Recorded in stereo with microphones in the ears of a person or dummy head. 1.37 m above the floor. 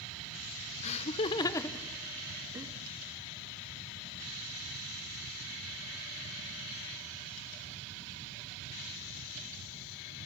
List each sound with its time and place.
0.8 s laughter: 40° left (ahead or behind), 1.0 m; by 2.7 s 25° right (ahead or behind), 0.8 m